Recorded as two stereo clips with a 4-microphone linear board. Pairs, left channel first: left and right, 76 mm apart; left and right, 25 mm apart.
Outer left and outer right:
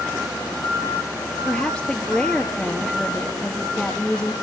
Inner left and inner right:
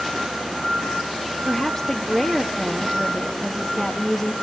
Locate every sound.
1.4 s a woman speaking: 10° left (ahead or behind), 1.2 m